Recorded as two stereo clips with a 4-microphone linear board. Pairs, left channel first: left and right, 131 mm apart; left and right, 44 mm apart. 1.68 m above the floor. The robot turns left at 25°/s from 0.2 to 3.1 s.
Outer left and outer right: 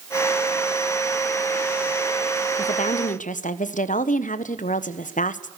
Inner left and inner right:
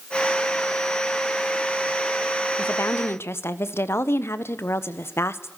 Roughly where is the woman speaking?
Left.